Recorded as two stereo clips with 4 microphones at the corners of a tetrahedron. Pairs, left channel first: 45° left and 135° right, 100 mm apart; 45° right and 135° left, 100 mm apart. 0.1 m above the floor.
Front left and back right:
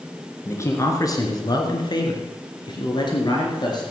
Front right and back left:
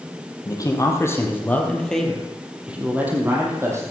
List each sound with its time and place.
0.5 s a man speaking: 10° right, 2.5 m; by 3.8 s 80° left, 3 m